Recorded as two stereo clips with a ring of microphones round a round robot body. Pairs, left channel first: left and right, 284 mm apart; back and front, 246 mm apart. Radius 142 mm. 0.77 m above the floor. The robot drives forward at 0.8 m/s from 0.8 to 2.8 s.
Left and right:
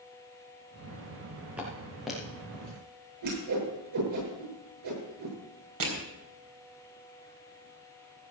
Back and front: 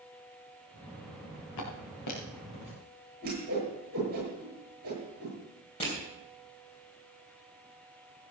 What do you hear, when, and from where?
1.6 s footsteps: 175° right, 4.5 m; by 2.7 s 175° left, 5.5 m
3.2 s a whoosh: 60° right, 9 m
5.8 s crushing: 110° right, 4 m